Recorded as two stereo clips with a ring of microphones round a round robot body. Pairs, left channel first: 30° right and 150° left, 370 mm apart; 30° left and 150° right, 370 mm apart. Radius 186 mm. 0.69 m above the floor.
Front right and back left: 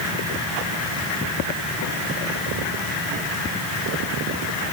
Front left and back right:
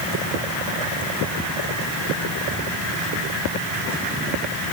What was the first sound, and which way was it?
Only background noise.